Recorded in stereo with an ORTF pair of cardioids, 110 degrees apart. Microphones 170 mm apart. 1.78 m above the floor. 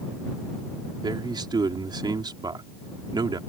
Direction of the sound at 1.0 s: 25° right.